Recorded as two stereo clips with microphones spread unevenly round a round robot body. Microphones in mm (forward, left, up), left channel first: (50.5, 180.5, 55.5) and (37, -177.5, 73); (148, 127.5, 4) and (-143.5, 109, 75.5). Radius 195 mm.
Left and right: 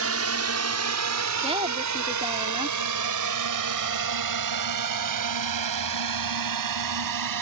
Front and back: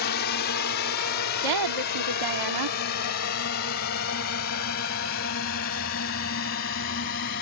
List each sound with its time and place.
0.0 s a drone: 45° right; by 7.4 s 60° right
1.4 s a woman speaking: 170° right